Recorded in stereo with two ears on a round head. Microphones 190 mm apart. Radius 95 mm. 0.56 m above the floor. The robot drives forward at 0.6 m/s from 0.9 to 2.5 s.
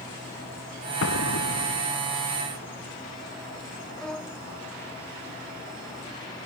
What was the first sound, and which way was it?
An explosion, 70° left (ahead or behind).